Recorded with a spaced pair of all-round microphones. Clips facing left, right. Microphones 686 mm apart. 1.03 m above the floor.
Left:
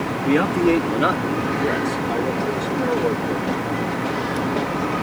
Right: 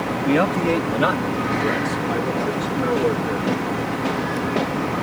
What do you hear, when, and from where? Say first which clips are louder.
0.2 s a man speaking: left 2 dB; 5° right (ahead or behind); by 3.5 s 45° right (ahead or behind)